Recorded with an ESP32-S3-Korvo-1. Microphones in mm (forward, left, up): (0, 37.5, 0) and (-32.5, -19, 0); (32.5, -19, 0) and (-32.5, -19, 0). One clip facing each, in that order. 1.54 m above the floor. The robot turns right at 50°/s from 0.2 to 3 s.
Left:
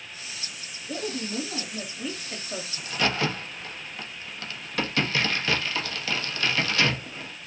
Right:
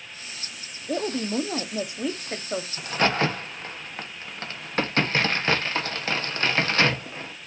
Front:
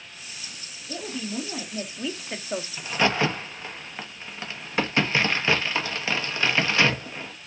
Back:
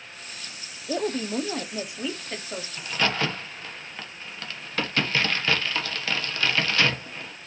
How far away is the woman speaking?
About 0.9 m.